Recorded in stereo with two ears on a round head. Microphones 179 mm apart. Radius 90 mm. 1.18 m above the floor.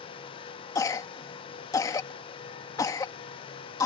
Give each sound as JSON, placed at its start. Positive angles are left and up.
{"t": 0.8, "sound": "a cough", "side_deg": 20}